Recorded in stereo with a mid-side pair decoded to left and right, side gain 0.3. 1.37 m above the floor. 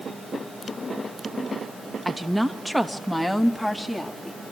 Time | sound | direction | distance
2.0 | a woman speaking | 10° right | 2.0 m